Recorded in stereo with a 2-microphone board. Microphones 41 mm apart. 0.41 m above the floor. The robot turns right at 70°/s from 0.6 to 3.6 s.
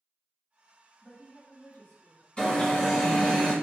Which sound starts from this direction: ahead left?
An alarm, at 2.4 s.